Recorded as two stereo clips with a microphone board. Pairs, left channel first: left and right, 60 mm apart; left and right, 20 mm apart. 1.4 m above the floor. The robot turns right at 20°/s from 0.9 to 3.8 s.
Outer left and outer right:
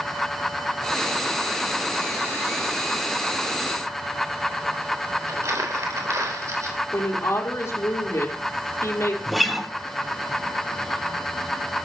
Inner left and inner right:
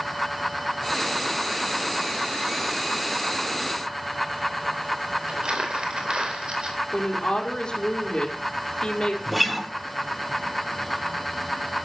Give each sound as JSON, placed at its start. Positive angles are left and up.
{"t": 5.3, "sound": "crumpling", "side_deg": -60, "distance_m": 3.5}
{"t": 6.9, "sound": "a woman speaking", "side_deg": 45, "distance_m": 4.5}
{"t": 9.3, "sound": "a guitar", "side_deg": 0, "distance_m": 1.4}